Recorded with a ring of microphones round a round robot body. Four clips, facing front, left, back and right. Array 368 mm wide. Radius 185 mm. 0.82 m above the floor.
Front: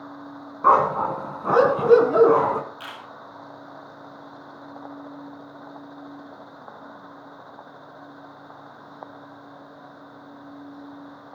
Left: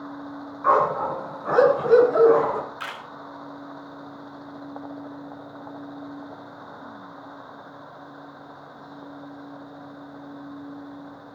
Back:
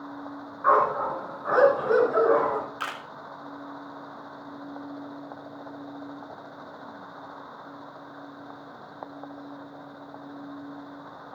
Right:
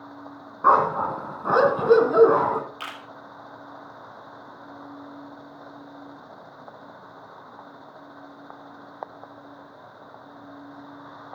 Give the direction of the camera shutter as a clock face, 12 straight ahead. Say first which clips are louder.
Left 2 dB, back 4 dB; 5 o'clock.